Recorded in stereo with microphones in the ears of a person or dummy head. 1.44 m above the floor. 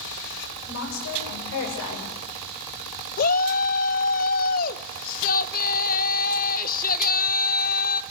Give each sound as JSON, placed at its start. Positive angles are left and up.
{"t": 0.7, "sound": "a woman speaking", "side_deg": 75, "distance_m": 8.5}
{"t": 3.2, "sound": "a shout", "side_deg": 50, "distance_m": 1.1}